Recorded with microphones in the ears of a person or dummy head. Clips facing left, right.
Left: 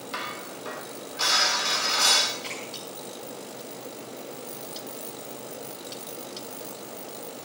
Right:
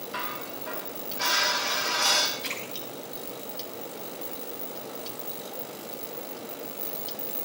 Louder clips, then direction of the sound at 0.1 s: Even; 80° left.